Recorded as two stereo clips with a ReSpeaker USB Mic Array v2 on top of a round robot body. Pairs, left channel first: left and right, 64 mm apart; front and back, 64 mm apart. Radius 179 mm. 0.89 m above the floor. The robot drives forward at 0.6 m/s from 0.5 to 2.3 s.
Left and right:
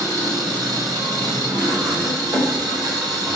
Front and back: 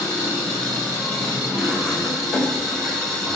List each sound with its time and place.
0.0 s an engine running: 70° right, 5 m; by 3.4 s 80° right, 4.5 m